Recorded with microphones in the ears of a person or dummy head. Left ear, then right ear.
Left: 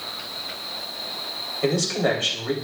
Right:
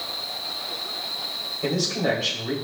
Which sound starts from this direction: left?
A man speaking, at 1.6 s.